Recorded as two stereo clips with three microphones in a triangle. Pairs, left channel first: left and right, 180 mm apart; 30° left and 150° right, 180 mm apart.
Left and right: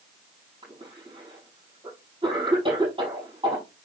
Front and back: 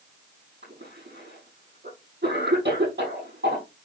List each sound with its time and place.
0.6 s a cough: 150° right, 6 m